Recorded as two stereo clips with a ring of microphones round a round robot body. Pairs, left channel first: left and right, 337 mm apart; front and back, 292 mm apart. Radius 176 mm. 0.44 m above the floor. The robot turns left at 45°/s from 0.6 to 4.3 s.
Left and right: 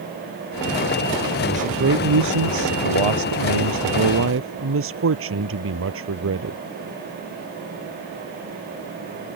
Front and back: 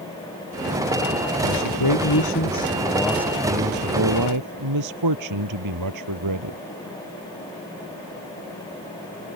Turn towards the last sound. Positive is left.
turn(degrees=-145)